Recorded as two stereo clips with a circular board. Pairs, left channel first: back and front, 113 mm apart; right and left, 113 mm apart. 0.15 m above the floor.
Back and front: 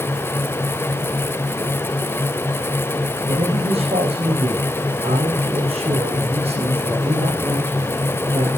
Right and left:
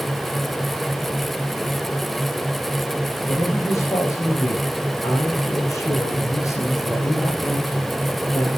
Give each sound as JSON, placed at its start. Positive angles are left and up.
{"t": 3.3, "sound": "a man speaking", "azimuth_deg": -25, "distance_m": 7.0}